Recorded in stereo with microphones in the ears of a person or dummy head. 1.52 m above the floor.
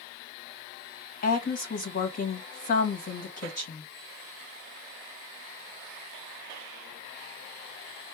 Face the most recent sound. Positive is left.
turn(degrees=40)  # may be behind; listen again after turning